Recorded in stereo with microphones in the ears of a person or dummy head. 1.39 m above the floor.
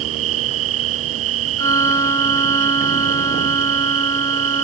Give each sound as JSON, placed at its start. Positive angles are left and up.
{"t": 0.0, "sound": "an insect", "side_deg": -80}
{"t": 1.6, "sound": "a violin", "side_deg": 15}